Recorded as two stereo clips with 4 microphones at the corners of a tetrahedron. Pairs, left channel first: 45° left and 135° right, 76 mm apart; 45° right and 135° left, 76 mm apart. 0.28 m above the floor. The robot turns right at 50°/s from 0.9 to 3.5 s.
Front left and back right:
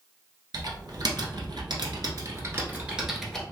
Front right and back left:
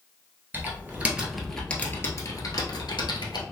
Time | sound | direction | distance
0.5 | typing on a keyboard | 160° right | 0.9 m